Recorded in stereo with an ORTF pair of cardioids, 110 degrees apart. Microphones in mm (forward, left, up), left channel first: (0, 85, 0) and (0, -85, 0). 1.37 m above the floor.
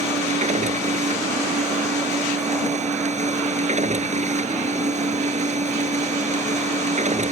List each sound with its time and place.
0.0 s a machine running: 40° right